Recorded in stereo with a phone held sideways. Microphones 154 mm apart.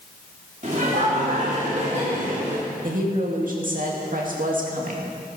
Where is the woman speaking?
60° right (ahead or behind), 2 m.